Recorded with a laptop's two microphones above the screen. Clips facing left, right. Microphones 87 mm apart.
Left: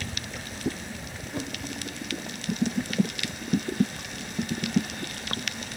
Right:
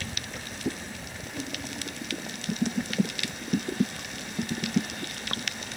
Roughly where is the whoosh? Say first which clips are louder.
Left 3 dB; left.